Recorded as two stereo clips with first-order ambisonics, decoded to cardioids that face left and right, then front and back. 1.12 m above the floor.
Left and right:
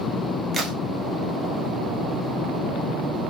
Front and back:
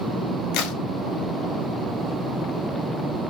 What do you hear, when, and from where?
0.5 s a crack: 15° right, 0.7 m